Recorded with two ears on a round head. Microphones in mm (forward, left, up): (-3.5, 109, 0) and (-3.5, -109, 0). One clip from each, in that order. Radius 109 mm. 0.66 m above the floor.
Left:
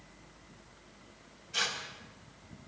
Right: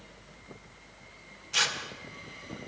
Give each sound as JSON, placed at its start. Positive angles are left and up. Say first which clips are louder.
{"t": 1.5, "sound": "tearing paper", "louder": "right 5 dB", "side_deg": -55, "distance_m": 2.5}